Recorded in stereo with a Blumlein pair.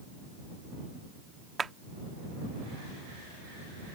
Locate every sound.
1.6 s a clap: 15° right